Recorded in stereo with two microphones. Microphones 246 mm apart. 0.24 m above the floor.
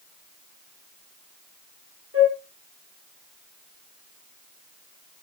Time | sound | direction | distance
2.1 | a flute | 65° right (ahead or behind) | 4 m